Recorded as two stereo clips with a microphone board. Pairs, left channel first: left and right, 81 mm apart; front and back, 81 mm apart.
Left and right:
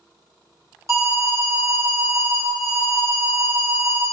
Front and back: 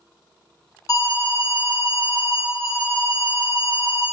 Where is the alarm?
40° right, 1.7 m.